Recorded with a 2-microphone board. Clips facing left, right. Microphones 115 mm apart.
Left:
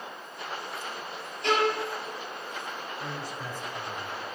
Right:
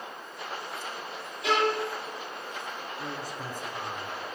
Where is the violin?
5° right (ahead or behind), 6 m.